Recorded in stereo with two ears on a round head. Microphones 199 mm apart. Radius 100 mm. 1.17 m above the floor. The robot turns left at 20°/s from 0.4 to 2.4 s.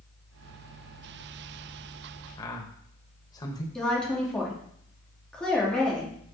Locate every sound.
2.4 s a man speaking: 20° left (ahead or behind), 1.0 m; by 3.6 s 15° left (ahead or behind), 1.0 m
3.8 s a woman speaking: 5° left (ahead or behind), 2.5 m